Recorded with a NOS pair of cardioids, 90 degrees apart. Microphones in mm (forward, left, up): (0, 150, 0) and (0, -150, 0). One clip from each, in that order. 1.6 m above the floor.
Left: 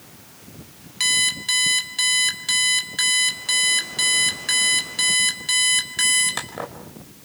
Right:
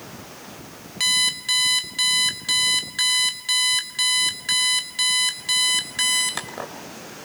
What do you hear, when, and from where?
1.0 s an alarm clock: 5° left, 4 m